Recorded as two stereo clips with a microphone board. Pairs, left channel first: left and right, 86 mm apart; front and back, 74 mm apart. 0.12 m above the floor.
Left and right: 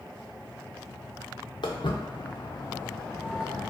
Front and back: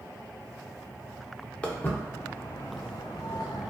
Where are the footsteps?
75° left, 0.9 m; by 3.7 s 5° right, 0.8 m.